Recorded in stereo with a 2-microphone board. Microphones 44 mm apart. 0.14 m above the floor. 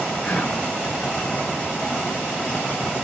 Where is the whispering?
35° left (ahead or behind), 1.2 m.